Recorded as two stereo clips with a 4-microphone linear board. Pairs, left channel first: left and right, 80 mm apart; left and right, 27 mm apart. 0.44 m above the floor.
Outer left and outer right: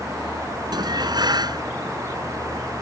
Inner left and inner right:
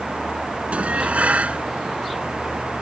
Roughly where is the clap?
I don't hear a clap.